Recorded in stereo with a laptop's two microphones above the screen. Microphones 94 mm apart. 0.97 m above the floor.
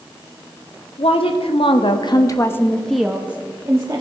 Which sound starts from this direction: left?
A woman speaking, at 1.0 s.